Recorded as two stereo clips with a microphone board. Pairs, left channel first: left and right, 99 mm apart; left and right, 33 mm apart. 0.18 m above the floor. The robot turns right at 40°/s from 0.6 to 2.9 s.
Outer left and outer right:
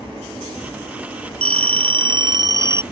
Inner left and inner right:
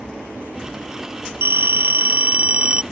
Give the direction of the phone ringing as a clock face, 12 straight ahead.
3 o'clock.